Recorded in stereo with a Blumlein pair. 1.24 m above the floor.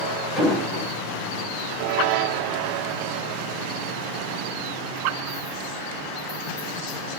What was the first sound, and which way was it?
An explosion, 5° left.